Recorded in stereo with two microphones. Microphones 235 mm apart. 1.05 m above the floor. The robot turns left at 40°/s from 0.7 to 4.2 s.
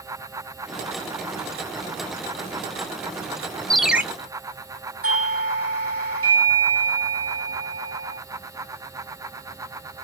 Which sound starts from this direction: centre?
A ringtone, at 3.7 s.